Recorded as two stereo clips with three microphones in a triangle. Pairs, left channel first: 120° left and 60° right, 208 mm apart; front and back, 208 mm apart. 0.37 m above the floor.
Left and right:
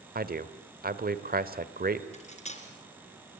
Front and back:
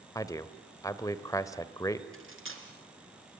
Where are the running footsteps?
I don't hear running footsteps.